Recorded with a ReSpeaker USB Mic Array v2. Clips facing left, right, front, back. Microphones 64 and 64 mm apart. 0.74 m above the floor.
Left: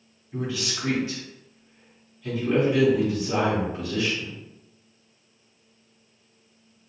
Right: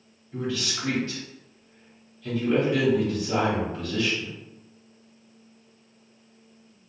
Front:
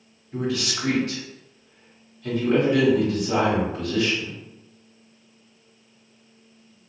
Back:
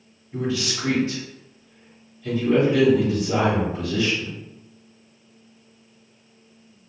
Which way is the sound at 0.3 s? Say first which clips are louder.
Even, back 1 dB; 10° left.